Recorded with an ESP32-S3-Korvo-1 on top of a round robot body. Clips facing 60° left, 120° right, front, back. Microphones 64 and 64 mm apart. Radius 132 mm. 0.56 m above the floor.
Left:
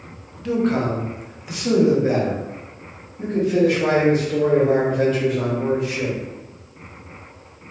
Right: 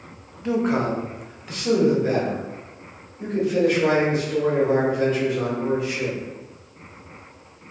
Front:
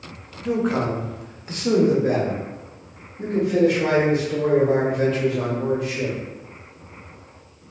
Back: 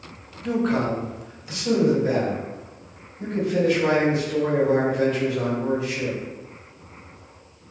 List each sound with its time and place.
0.4 s a man speaking: 90° right, 0.9 m; by 6.2 s 15° left, 3 m